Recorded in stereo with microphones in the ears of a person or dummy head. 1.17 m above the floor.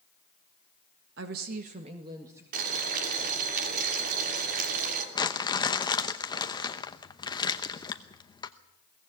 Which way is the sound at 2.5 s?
50° right (ahead or behind).